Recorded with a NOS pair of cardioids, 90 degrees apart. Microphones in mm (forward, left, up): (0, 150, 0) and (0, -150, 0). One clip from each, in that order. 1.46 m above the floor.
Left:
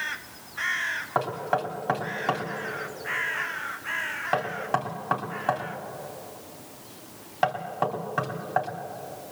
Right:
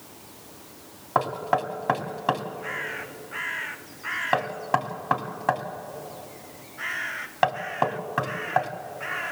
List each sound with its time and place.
1.1 s knocking: 20° right, 3 m